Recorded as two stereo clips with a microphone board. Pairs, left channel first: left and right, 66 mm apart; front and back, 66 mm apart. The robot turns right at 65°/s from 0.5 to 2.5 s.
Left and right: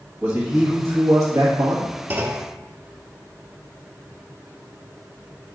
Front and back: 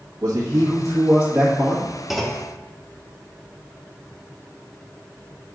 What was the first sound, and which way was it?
A man speaking, 150° right.